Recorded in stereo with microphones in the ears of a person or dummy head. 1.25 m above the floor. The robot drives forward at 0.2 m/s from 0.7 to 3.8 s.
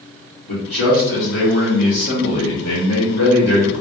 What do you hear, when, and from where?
0.5 s a man speaking: 60° left (ahead or behind), 1.2 m; by 3.8 s 65° left (ahead or behind), 1.2 m